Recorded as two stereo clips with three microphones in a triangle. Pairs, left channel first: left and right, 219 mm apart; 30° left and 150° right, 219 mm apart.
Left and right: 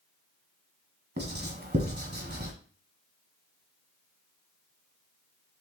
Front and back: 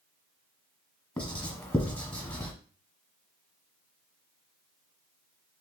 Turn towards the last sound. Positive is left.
turn(degrees=-55)